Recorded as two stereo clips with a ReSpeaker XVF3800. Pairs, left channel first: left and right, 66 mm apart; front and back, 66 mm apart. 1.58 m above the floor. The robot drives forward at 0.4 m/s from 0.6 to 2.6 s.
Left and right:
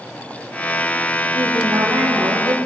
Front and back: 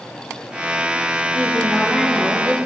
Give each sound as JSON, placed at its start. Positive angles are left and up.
{"t": 1.3, "sound": "a woman speaking", "azimuth_deg": -90, "distance_m": 3.5}